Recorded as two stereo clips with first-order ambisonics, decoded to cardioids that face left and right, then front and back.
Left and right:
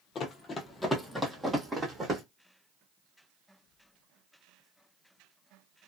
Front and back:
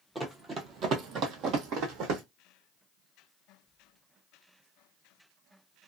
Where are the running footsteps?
110° left, 0.6 m; by 2.2 s 160° right, 1.2 m.